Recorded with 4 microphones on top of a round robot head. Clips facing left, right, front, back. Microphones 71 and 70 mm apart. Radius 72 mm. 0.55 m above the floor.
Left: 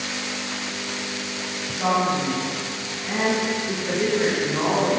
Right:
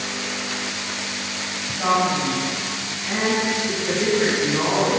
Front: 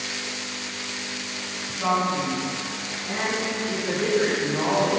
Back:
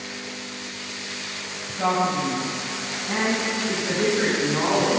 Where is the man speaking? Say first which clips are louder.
Right 2 dB, back 1 dB; 170° right, 3.5 m; by 5.0 s 165° left, 5 m.